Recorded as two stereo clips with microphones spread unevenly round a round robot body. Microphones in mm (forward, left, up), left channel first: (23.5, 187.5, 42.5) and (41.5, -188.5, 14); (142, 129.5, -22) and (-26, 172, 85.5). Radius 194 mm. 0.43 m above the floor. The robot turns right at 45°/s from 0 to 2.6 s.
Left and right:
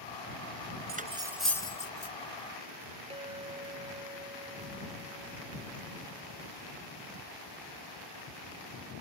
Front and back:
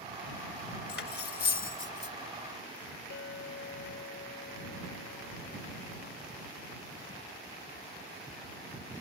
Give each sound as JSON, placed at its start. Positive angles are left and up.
{"t": 0.9, "sound": "cutlery clinking", "azimuth_deg": -20}
{"t": 3.1, "sound": "a clink", "azimuth_deg": -10}